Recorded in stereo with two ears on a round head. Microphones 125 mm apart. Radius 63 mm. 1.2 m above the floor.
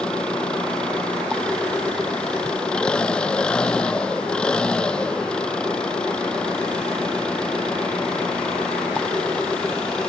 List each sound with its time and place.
0.0 s an engine running: 5° left (ahead or behind)